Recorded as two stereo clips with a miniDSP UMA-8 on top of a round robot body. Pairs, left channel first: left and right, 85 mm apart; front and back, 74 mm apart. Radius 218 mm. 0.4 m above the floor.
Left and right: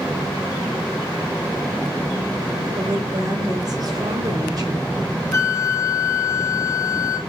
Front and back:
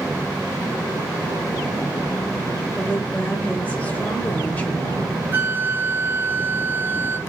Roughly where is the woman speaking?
Ahead right.